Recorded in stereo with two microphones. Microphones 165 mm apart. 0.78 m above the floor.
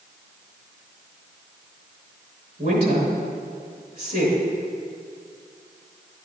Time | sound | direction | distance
2.6 | a woman speaking | 65° right (ahead or behind) | 3.5 m